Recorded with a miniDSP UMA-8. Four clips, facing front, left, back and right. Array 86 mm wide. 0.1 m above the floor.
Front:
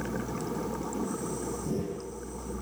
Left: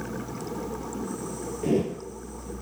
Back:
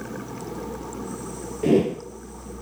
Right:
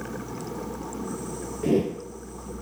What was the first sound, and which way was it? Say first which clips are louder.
A whoosh: right 2 dB, back 19 dB; 170° right.